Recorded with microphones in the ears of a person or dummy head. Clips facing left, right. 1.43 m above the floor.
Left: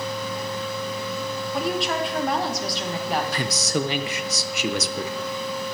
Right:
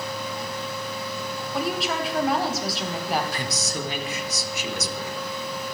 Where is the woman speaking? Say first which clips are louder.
Left 1 dB; centre (ahead or behind), 1.4 m.